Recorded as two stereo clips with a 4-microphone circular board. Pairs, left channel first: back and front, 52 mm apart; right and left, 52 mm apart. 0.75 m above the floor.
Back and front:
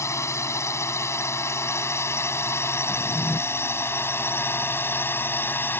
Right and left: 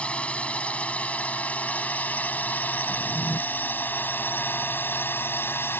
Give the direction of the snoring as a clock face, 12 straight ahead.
I don't hear snoring.